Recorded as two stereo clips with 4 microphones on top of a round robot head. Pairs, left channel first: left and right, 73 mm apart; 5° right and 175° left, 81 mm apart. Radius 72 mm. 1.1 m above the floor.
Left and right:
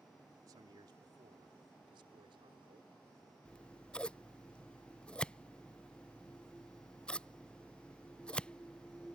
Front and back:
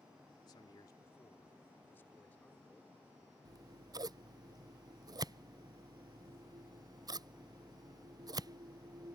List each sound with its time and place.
0.5 s a man speaking: 45° right; by 3.4 s 85° right
3.5 s scissors: 165° left